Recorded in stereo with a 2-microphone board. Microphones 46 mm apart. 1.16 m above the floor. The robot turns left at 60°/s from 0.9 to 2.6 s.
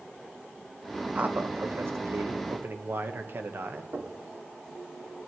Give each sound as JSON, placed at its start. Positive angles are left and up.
{"t": 1.1, "sound": "a man speaking", "azimuth_deg": -35, "distance_m": 1.0}
{"t": 3.9, "sound": "knocking", "side_deg": -65, "distance_m": 2.0}